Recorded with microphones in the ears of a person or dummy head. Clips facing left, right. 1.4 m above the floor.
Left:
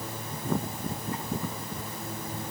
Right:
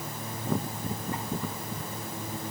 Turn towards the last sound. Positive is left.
No sound to turn to.